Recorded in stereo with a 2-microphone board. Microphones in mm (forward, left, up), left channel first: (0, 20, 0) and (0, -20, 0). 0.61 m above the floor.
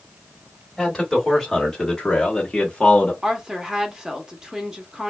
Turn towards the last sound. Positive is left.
turn(degrees=-20)  # may be behind; listen again after turning